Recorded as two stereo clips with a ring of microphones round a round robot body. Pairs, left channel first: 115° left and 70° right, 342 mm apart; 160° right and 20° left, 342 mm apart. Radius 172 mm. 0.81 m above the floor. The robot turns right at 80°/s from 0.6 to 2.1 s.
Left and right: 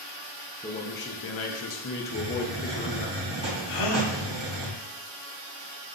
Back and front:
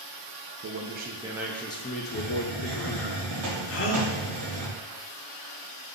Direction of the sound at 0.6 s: 45° left.